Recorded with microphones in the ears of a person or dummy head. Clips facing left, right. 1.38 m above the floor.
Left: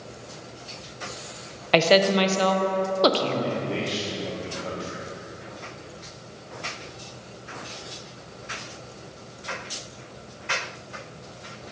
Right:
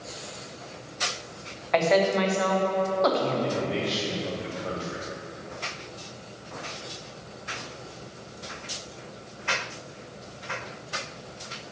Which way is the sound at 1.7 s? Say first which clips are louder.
Left 3 dB; 45° left (ahead or behind).